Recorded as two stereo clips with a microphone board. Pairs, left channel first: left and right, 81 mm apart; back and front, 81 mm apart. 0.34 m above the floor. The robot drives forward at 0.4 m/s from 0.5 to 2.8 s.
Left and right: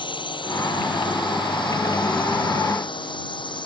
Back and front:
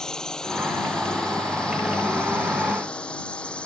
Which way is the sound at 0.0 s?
100° left.